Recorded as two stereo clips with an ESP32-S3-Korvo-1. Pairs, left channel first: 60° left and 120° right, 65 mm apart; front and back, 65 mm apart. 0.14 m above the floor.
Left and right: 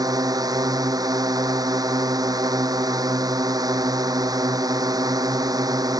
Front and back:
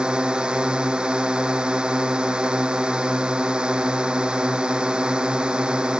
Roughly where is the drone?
Right.